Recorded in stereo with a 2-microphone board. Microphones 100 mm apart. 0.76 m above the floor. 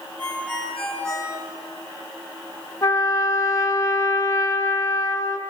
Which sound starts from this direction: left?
A trumpet, at 2.8 s.